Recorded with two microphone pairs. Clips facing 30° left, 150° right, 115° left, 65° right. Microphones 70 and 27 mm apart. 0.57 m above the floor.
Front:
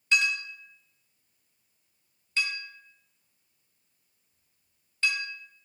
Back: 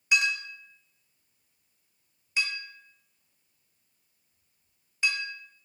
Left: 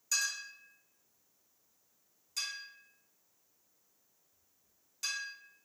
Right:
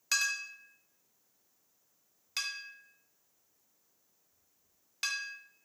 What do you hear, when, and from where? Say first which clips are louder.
0.1 s a clink: even, right 4 dB; 75° right, 0.8 m